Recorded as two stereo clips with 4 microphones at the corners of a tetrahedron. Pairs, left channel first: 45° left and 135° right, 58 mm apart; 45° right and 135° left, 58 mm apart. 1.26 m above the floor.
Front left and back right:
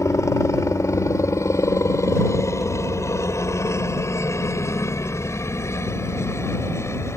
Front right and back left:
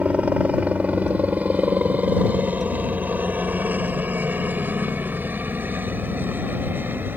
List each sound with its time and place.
0.0 s a helicopter: 70° left; by 7.2 s 80° left